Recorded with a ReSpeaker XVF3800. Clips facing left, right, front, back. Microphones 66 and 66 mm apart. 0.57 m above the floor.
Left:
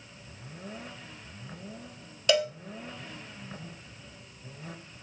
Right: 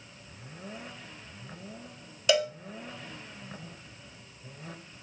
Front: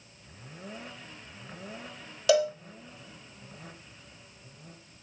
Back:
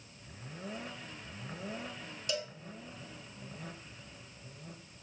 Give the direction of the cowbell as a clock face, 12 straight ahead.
12 o'clock.